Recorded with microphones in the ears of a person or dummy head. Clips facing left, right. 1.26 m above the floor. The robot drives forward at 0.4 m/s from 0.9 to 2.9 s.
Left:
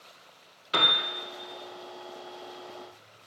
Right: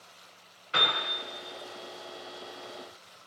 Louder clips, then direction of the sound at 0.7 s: Left 2 dB; 55° left (ahead or behind).